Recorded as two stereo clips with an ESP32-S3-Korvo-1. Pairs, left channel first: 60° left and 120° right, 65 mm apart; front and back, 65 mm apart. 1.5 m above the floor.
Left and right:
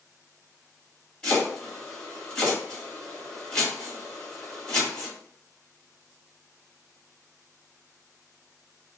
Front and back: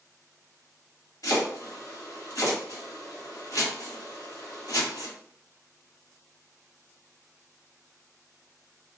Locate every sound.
1.2 s chopping: 15° right, 1.8 m